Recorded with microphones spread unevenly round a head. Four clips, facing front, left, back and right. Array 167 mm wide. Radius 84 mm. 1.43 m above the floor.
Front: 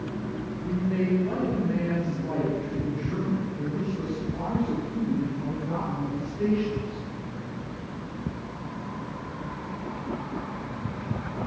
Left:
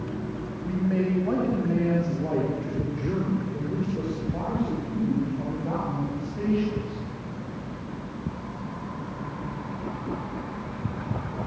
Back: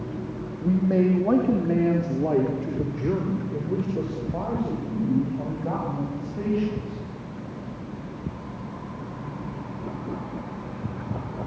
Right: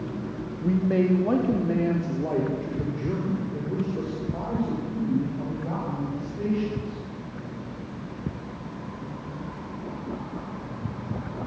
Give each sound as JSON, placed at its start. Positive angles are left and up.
{"t": 0.6, "sound": "a man speaking", "azimuth_deg": -145, "distance_m": 3.0}